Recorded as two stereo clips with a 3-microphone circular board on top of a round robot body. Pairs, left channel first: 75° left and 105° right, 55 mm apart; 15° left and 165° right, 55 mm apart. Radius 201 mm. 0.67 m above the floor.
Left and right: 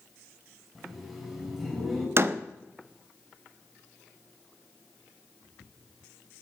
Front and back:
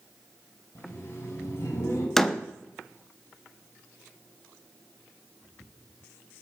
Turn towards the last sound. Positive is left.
turn(degrees=-65)